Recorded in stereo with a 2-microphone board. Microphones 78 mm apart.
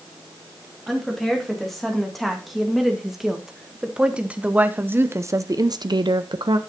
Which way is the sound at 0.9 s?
5° left (ahead or behind).